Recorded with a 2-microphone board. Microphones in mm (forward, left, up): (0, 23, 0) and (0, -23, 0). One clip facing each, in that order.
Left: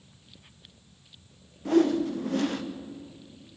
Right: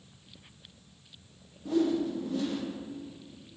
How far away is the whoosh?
About 0.8 m.